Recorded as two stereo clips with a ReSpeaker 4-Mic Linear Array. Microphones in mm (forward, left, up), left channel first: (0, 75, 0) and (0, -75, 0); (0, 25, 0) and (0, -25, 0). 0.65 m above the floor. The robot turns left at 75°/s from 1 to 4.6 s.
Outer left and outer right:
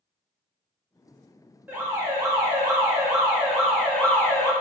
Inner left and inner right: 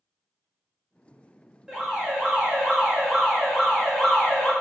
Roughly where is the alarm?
Centre.